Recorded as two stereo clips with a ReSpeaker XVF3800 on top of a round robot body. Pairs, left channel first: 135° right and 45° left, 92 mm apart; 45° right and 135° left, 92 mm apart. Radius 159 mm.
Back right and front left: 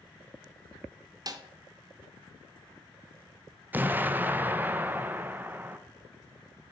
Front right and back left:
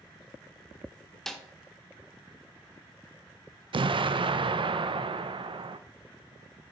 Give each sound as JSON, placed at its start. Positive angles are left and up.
{"t": 1.3, "sound": "a snare drum", "azimuth_deg": 40, "distance_m": 1.1}
{"t": 3.7, "sound": "an explosion", "azimuth_deg": 115, "distance_m": 0.7}